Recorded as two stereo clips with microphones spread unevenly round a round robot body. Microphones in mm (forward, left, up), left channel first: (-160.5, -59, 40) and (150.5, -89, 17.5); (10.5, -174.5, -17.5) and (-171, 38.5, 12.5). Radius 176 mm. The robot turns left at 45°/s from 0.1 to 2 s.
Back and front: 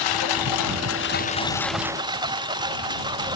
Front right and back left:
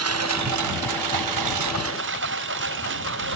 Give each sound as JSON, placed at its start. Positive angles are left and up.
{"t": 0.0, "sound": "a lawn mower", "azimuth_deg": 160}